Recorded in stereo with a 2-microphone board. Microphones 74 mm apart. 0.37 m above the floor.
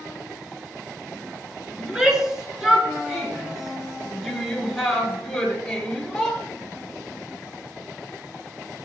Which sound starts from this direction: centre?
A shout, at 1.8 s.